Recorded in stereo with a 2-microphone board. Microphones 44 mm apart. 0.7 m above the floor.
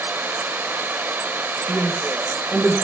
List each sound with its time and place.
0.0 s running water: 50° right (ahead or behind), 0.8 m
1.7 s a woman speaking: 15° right (ahead or behind), 6.5 m